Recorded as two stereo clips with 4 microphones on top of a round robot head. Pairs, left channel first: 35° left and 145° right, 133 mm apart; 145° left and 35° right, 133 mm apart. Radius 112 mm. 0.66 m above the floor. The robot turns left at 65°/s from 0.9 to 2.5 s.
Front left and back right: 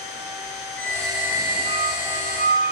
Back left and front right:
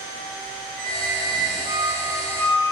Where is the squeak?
40° right, 3 m; by 2.7 s 145° right, 3 m.